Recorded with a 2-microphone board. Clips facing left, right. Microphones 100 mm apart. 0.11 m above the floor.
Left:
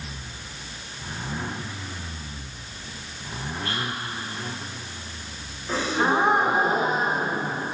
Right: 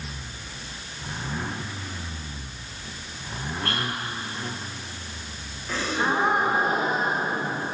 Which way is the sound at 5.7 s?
20° left (ahead or behind).